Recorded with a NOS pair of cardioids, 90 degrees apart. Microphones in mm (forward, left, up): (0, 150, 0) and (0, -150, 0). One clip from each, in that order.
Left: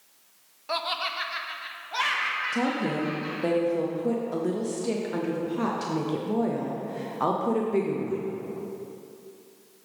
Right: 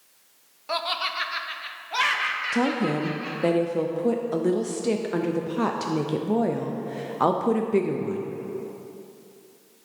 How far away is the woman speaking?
About 0.6 m.